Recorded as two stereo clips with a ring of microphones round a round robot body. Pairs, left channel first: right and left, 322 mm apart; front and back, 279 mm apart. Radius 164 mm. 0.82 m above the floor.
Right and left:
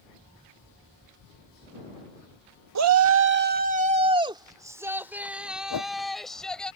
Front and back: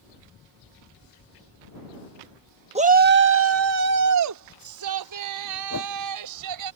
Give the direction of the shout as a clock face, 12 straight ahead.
8 o'clock.